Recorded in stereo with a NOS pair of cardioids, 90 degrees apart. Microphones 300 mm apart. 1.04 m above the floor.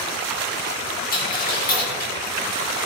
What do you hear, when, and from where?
1.1 s a dropped coin: 30° left, 4.5 m